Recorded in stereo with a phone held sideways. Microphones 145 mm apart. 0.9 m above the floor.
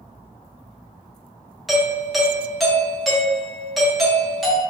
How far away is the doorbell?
About 0.7 m.